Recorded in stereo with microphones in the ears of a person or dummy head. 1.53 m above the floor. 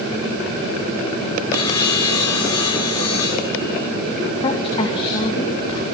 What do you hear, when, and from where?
1.5 s sawing: 20° left (ahead or behind), 3 m
4.4 s a woman speaking: 25° left (ahead or behind), 2.5 m